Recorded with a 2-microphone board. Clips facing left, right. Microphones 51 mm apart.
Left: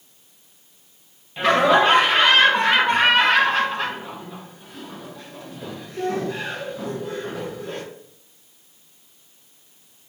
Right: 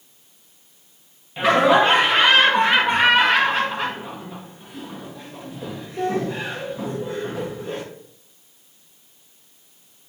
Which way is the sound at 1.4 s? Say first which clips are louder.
Right 1 dB; 5° right (ahead or behind).